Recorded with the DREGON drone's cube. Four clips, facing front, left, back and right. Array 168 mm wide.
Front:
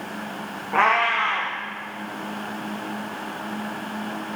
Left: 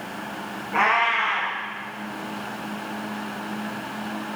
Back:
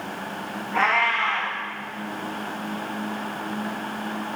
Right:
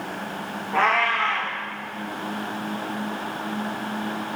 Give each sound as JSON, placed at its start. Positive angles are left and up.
{"t": 0.7, "sound": "a cat meowing", "azimuth_deg": -15, "distance_m": 6.0}